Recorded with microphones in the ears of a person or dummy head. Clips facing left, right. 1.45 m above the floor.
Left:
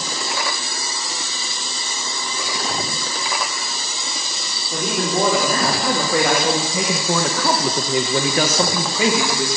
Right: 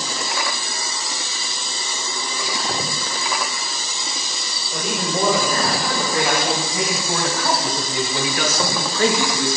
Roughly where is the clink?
I don't hear a clink.